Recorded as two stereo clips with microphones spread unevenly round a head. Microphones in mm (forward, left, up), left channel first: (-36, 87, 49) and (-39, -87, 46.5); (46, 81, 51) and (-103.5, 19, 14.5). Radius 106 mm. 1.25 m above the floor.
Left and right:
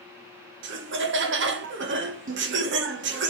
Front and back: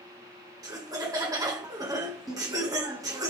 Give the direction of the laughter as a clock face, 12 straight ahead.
3 o'clock.